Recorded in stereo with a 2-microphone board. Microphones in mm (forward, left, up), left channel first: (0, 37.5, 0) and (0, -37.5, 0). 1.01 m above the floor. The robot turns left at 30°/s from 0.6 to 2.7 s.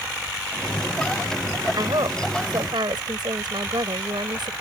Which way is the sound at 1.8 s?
70° right (ahead or behind).